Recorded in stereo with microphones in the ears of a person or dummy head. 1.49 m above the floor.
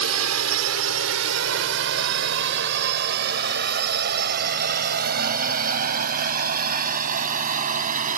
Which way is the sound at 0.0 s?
75° right (ahead or behind).